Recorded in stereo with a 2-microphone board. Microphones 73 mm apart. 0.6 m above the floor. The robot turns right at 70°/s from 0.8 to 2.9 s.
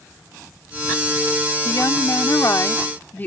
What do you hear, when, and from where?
1.6 s a woman speaking: 60° left; by 3.3 s 145° left